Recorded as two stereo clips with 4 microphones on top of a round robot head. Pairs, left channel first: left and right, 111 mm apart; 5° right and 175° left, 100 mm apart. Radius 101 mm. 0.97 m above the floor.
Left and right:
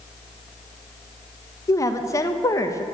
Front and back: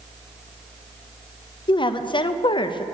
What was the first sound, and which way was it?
A woman speaking, 30° left.